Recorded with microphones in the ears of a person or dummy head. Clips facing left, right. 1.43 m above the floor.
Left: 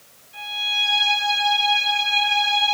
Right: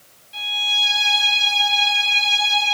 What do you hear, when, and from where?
0.3 s a violin: 60° right (ahead or behind), 2.5 m